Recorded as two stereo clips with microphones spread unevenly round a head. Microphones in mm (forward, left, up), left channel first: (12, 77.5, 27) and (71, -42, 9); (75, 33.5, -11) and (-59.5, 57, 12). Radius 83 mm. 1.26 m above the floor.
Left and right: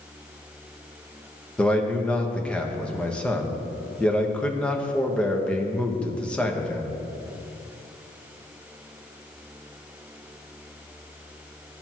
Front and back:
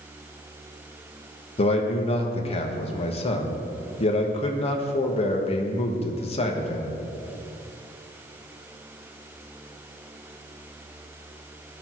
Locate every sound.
1.6 s a man speaking: 35° left, 1.4 m